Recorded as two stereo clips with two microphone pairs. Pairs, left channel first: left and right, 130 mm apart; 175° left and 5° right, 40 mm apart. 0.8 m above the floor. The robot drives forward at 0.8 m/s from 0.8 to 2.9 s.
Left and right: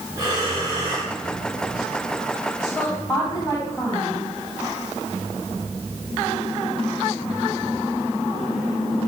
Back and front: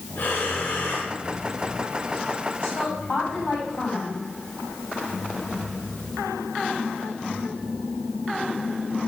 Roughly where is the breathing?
Behind right.